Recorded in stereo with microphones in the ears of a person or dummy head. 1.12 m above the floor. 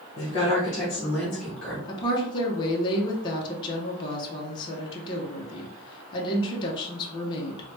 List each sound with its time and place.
0.2 s a woman speaking: 35° left (ahead or behind), 0.8 m; by 1.8 s 10° left (ahead or behind), 1.4 m
1.9 s a woman speaking: 20° left (ahead or behind), 0.6 m